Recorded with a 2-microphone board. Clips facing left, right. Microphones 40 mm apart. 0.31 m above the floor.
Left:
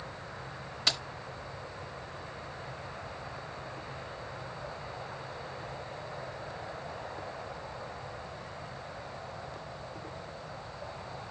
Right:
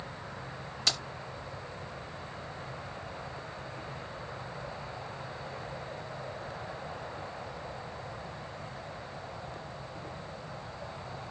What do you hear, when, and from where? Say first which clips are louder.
0.9 s keys jangling: left 1 dB; 10° left (ahead or behind), 0.9 m